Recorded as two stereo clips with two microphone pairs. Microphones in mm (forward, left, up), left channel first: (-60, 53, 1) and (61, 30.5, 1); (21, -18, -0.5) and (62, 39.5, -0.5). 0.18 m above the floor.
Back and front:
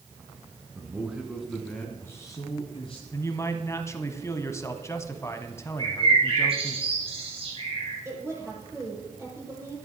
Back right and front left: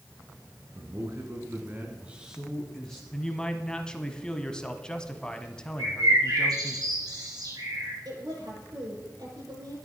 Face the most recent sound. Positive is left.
turn(degrees=60)